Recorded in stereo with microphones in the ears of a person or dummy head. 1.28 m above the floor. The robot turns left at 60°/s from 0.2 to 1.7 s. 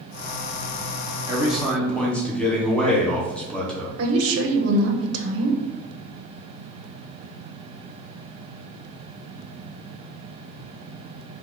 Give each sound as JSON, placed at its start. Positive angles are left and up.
{"t": 1.3, "sound": "a man speaking", "side_deg": -15, "distance_m": 0.8}
{"t": 4.0, "sound": "a woman speaking", "side_deg": -75, "distance_m": 0.9}